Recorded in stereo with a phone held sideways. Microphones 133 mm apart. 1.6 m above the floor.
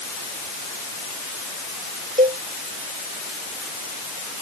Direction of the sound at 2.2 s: 80° right.